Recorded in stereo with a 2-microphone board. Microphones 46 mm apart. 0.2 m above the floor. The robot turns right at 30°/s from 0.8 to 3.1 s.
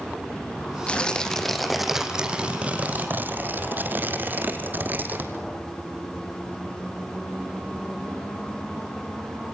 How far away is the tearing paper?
About 2 m.